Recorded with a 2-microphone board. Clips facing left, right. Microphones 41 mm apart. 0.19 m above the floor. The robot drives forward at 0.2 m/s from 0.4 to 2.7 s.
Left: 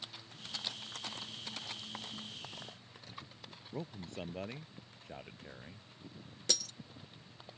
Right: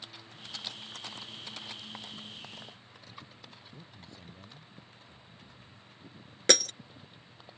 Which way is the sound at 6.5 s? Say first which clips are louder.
Right 13 dB; 65° right (ahead or behind).